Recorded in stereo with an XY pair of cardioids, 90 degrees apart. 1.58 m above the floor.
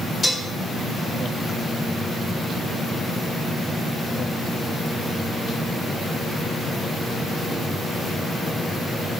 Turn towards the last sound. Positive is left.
turn(degrees=25)